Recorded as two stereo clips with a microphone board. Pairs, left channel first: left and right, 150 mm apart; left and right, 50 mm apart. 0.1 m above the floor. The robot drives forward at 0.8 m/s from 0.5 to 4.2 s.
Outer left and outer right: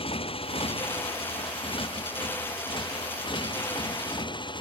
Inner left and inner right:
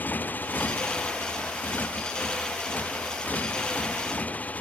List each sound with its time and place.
0.0 s a motorcycle: 35° left (ahead or behind); by 4.6 s 30° left (ahead or behind)